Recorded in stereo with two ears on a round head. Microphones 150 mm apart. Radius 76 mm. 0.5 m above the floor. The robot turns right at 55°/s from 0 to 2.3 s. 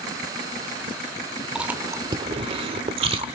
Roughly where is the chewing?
Centre.